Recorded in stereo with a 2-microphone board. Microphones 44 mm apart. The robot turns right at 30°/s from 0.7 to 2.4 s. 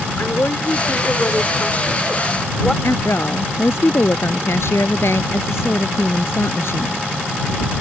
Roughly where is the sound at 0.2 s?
Behind left.